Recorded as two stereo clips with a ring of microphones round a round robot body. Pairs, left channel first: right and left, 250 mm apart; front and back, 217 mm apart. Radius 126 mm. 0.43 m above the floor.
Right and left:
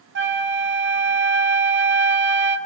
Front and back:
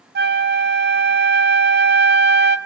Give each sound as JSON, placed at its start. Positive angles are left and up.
{"t": 0.1, "sound": "a flute", "azimuth_deg": 135, "distance_m": 1.5}